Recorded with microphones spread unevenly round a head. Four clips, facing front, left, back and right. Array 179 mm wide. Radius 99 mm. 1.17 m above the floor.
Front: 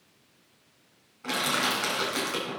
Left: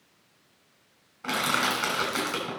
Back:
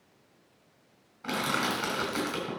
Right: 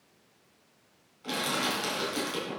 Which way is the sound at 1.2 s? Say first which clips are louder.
Left 4 dB, front 1 dB; 75° left.